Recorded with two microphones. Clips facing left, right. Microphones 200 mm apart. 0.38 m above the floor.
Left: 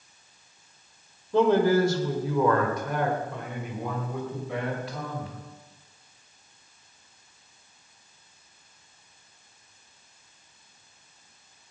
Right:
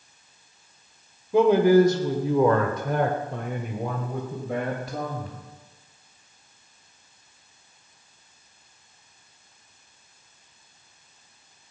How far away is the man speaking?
About 1.7 m.